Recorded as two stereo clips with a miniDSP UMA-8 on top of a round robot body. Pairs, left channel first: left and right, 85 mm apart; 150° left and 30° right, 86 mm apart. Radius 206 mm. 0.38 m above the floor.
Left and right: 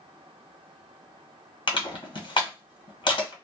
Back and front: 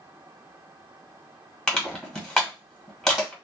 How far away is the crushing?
About 1.7 m.